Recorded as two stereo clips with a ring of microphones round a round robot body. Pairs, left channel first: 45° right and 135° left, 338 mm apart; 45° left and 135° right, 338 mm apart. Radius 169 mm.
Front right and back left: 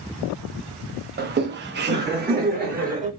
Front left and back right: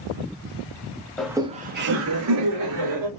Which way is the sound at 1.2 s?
130° left.